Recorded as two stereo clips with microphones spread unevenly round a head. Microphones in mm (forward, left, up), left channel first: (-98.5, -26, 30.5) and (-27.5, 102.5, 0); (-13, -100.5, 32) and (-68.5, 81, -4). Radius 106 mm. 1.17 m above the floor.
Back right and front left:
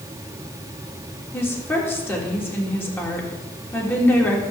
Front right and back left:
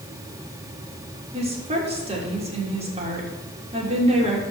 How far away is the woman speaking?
About 3 m.